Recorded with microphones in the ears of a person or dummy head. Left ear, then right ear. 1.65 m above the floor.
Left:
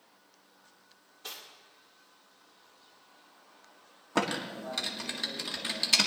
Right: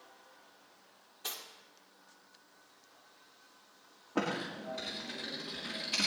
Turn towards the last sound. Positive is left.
turn(degrees=65)  # may be behind; listen again after turning